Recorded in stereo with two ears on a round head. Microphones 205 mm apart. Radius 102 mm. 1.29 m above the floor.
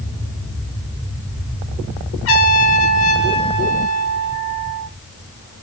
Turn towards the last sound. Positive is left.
turn(degrees=65)  # may be behind; listen again after turning